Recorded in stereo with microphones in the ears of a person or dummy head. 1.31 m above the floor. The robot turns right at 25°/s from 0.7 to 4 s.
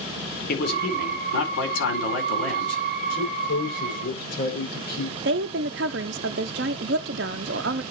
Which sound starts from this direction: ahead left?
A man speaking, at 0.5 s.